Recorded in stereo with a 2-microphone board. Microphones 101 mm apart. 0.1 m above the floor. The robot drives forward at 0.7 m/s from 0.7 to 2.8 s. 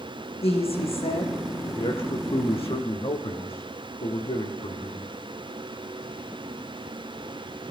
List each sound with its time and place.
0.4 s a woman speaking: 75° left (ahead or behind), 6.5 m
1.8 s a man speaking: 70° left (ahead or behind), 5.5 m; by 5.1 s 75° left (ahead or behind), 5 m